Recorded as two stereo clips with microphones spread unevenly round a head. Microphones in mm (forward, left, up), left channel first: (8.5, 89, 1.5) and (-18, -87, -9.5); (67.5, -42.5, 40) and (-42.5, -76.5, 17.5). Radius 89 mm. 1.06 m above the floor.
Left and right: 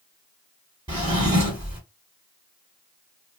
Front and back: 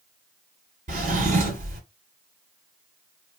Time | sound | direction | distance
0.9 | a drawer | 165° right | 1.4 m